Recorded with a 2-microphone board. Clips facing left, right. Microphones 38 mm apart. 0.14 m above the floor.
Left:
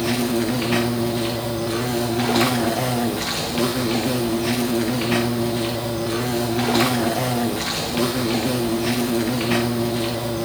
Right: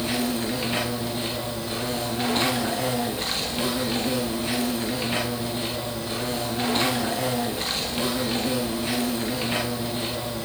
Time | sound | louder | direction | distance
0.0 | an insect | left 5 dB | 80° left | 4.5 m